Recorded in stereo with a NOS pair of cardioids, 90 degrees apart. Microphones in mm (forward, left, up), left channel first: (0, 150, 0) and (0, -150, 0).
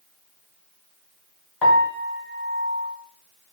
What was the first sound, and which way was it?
A piano, straight ahead.